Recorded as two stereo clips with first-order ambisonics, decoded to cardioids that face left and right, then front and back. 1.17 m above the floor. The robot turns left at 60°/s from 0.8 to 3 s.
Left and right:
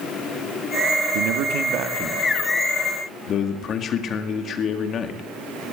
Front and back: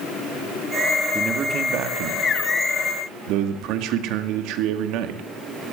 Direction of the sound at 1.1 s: 100° right.